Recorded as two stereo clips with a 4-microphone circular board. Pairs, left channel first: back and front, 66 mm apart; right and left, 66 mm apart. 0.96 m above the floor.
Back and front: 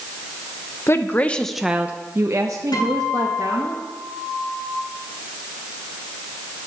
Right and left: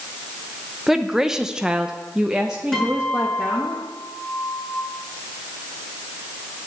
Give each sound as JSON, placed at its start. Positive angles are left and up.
{"t": 0.9, "sound": "a woman speaking", "azimuth_deg": 170, "distance_m": 0.8}
{"t": 2.7, "sound": "a guitar", "azimuth_deg": -170, "distance_m": 6.5}